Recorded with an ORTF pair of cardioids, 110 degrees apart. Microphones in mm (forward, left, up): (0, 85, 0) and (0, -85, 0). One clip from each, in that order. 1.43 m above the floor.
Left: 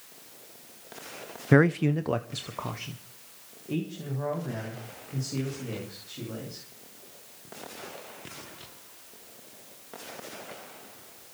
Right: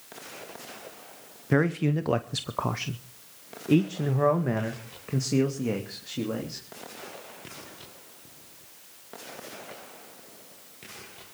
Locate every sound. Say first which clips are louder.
1.5 s a man speaking: left 3 dB; 25° left, 0.6 m; by 6.6 s 70° right, 3.5 m